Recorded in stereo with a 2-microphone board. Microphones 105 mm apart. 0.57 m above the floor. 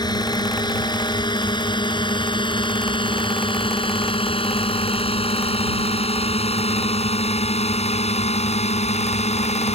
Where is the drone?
40° left (ahead or behind); by 9.8 s 75° left (ahead or behind).